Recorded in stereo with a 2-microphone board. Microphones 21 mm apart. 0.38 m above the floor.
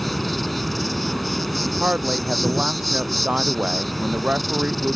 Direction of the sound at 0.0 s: Centre (ahead or behind).